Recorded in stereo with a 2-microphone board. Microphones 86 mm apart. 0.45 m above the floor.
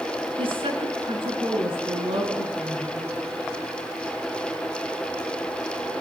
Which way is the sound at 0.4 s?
75° right (ahead or behind).